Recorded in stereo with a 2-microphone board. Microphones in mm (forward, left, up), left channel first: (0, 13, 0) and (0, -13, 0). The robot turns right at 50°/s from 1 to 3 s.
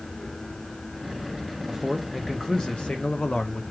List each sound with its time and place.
1.7 s a man speaking: 5° right, 0.7 m; by 3.6 s 60° left, 0.7 m